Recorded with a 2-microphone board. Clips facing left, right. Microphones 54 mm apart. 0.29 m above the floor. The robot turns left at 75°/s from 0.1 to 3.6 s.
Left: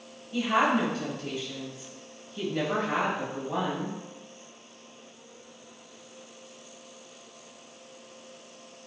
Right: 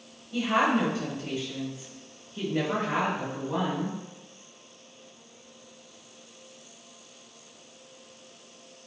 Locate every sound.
0.3 s a woman speaking: 20° left, 1.2 m; by 4.0 s 135° left, 1.2 m